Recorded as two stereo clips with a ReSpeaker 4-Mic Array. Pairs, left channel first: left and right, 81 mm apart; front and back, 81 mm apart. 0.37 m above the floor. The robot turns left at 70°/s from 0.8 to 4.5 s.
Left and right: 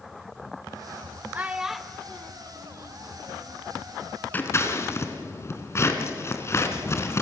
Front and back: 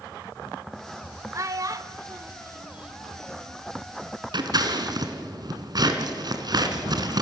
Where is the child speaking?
150° right, 0.8 m; by 3.6 s 50° left, 0.8 m.